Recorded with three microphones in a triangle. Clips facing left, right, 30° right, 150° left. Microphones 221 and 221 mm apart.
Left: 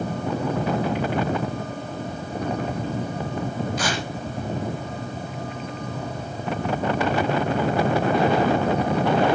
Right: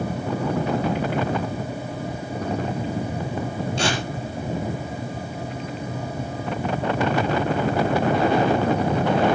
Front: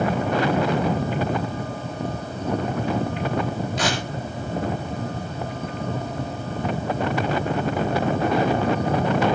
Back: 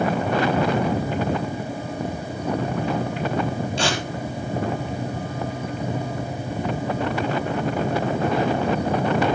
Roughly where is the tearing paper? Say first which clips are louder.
Right 2 dB, even; behind right.